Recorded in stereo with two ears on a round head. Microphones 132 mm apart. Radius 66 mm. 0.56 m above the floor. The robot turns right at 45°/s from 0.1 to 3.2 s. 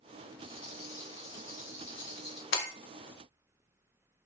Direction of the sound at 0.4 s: 60° left.